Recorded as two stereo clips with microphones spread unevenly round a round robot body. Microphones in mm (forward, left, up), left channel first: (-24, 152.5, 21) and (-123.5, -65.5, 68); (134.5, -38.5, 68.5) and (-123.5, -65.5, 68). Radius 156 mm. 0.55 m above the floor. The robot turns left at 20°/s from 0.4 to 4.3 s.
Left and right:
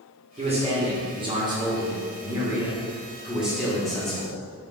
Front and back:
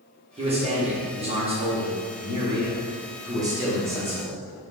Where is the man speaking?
165° right, 0.9 m; by 4.4 s 115° left, 0.9 m.